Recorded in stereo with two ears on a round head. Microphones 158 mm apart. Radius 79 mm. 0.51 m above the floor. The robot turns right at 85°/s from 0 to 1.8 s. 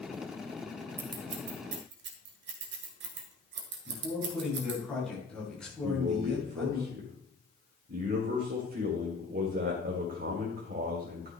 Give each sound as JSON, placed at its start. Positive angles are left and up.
{"t": 1.0, "sound": "scissors", "side_deg": -15, "distance_m": 1.8}
{"t": 3.9, "sound": "a man speaking", "side_deg": 5, "distance_m": 6.0}
{"t": 5.8, "sound": "a man speaking", "side_deg": -55, "distance_m": 1.9}